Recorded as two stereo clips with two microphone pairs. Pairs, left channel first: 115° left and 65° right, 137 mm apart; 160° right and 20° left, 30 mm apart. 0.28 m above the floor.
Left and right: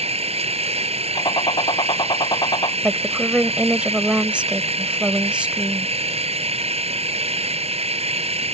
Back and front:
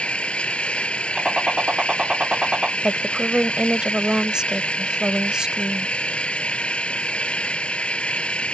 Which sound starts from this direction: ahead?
A woman speaking, at 2.8 s.